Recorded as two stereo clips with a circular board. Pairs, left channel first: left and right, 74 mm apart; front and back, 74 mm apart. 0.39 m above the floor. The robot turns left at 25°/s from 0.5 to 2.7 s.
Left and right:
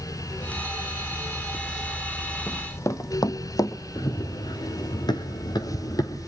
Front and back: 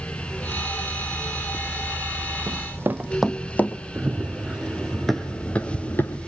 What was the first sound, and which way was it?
Running footsteps, 155° left.